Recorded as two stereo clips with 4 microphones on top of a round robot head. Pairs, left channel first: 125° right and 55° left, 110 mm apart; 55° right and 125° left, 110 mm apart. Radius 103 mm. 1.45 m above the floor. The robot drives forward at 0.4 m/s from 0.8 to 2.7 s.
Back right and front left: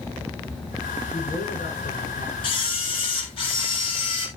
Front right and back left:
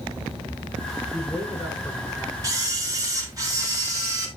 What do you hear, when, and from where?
1.1 s a man speaking: 145° right, 5.5 m; by 2.3 s 150° right, 6 m
2.4 s a camera shutter: 170° right, 3.5 m